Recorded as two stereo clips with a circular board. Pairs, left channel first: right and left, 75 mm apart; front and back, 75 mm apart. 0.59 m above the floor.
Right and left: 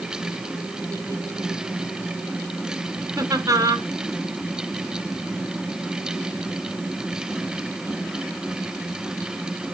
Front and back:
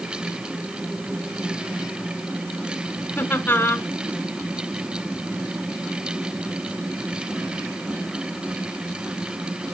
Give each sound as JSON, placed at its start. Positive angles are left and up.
{"t": 3.2, "sound": "laughter", "azimuth_deg": 60, "distance_m": 1.6}